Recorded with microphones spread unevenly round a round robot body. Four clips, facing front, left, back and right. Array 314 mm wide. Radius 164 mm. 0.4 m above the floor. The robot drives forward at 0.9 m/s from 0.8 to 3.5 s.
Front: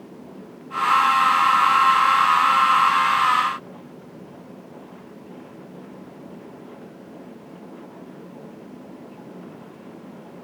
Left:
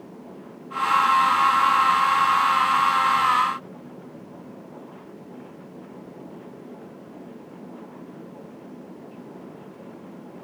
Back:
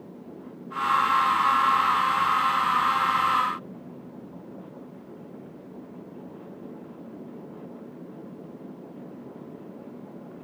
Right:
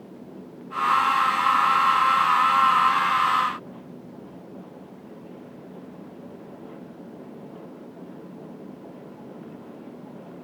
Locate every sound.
Only background noise.